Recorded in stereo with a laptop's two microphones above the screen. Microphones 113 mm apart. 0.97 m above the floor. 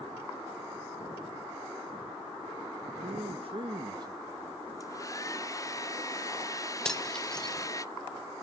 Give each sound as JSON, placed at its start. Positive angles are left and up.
{"t": 3.0, "sound": "a man speaking", "side_deg": -65, "distance_m": 1.0}
{"t": 4.8, "sound": "a hair dryer", "side_deg": 30, "distance_m": 0.6}
{"t": 6.8, "sound": "cutlery clinking", "side_deg": 5, "distance_m": 1.4}